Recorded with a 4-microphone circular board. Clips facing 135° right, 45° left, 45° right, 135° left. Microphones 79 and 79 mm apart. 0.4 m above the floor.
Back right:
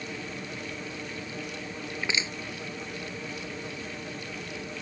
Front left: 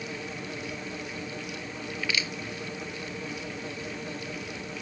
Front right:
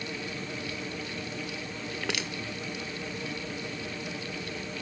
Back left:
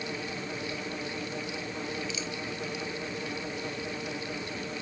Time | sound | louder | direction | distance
1.9 | crushing | even, front right 1 dB | 70° right | ?